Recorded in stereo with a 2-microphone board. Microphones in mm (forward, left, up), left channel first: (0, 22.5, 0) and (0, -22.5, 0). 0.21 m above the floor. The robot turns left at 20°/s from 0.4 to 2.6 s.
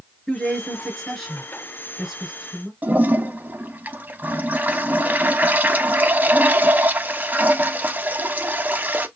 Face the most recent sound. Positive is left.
turn(degrees=-40)  # may be behind; listen again after turning